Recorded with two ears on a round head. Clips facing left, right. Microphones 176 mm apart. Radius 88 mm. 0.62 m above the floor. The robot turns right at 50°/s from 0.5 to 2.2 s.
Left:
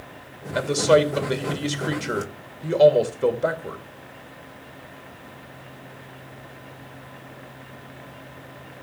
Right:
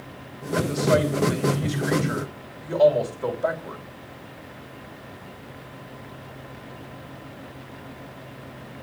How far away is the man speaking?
About 2.5 m.